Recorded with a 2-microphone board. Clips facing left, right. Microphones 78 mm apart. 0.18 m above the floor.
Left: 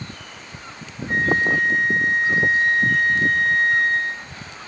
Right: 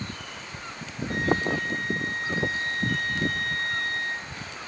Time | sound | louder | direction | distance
1.1 | a flute | left 6 dB | 25° left (ahead or behind) | 0.8 m